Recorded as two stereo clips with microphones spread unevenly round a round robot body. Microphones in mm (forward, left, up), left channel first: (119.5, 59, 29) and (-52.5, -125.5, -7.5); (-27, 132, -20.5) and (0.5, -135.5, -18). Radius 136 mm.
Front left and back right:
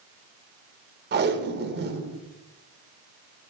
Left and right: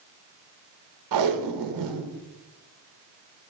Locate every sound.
1.1 s tape being pulled: 90° right, 0.8 m